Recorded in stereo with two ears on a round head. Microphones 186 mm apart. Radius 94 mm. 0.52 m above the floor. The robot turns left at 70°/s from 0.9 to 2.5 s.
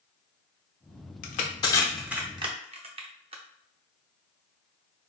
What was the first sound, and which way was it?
Crushing, 40° left (ahead or behind).